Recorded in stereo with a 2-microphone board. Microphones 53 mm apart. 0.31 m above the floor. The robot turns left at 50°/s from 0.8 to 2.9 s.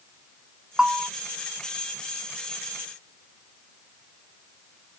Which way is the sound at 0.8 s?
15° right (ahead or behind).